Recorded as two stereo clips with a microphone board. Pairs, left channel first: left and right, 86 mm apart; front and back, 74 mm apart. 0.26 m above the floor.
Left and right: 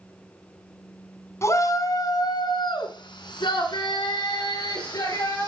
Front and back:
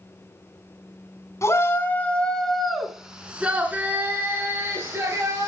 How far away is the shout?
About 2 m.